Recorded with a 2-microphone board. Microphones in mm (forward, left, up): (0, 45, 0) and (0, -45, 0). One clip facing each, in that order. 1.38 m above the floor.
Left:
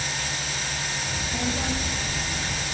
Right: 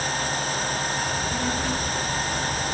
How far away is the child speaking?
About 4 m.